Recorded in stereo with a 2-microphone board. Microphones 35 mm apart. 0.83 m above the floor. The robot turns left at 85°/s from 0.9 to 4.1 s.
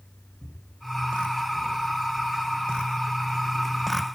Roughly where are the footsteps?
Left.